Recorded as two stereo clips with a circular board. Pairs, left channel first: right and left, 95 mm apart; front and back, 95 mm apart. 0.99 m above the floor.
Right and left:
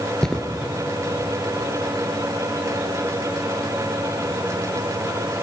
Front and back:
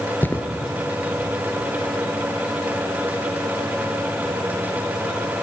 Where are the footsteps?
20° right, 1.0 m.